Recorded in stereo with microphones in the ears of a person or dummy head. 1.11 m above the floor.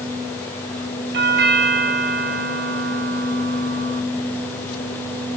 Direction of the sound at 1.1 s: 50° right (ahead or behind).